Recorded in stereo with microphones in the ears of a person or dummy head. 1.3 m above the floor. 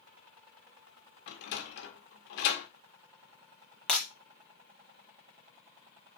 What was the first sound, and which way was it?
A sliding door, 65° left (ahead or behind).